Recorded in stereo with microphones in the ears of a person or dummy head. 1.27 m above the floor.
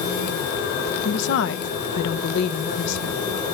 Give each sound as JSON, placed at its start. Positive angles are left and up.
{"t": 1.1, "sound": "a woman speaking", "side_deg": 65, "distance_m": 1.1}